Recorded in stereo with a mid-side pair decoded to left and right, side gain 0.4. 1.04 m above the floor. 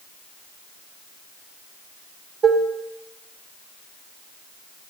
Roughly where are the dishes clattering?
Ahead right.